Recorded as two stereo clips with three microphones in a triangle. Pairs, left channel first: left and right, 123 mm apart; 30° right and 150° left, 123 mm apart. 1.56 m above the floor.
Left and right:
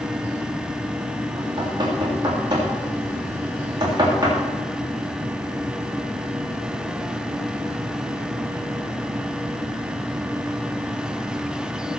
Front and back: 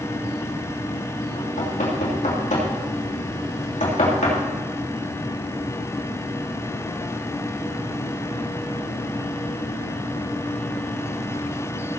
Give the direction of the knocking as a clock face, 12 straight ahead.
1 o'clock.